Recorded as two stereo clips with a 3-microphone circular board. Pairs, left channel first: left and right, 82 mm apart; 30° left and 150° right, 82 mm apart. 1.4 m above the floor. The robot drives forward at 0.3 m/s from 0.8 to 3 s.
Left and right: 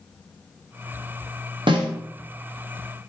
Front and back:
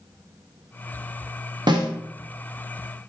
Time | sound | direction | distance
1.7 | a snare drum | 115° right | 0.7 m